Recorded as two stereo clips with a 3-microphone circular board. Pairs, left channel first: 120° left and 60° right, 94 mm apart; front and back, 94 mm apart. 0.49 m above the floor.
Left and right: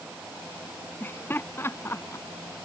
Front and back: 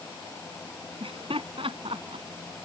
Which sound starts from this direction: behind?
Laughter, at 1.0 s.